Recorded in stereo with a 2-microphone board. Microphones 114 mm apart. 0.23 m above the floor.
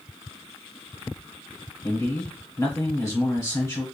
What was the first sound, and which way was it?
A man speaking, 25° left (ahead or behind).